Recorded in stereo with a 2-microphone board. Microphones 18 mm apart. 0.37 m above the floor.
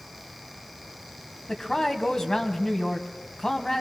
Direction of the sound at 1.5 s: 35° left (ahead or behind).